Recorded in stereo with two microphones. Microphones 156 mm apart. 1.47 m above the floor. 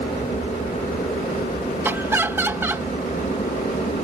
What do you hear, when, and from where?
0.0 s an aircraft: 60° left (ahead or behind)
1.8 s laughter: 15° right (ahead or behind)